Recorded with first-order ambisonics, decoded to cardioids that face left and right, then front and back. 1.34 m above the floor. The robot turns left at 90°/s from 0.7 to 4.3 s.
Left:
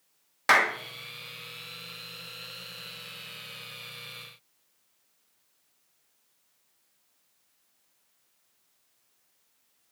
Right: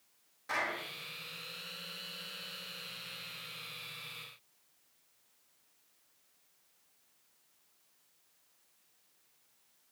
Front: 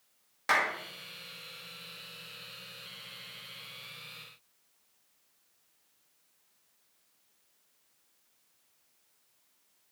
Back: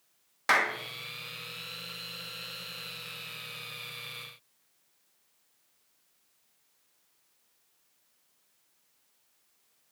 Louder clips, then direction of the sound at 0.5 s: Left 13 dB, back 2 dB; 105° left.